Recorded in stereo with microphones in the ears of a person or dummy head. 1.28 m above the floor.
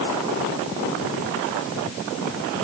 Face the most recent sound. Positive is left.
No sound to turn to.